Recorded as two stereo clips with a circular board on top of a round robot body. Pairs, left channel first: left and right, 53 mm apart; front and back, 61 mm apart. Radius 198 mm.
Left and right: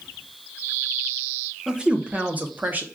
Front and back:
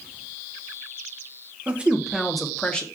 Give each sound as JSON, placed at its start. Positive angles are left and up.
{"t": 1.7, "sound": "a woman speaking", "azimuth_deg": -145, "distance_m": 0.9}